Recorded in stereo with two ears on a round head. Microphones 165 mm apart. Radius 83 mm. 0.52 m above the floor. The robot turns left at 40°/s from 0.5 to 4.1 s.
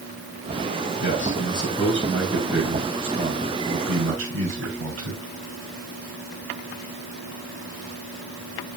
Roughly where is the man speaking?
Ahead left.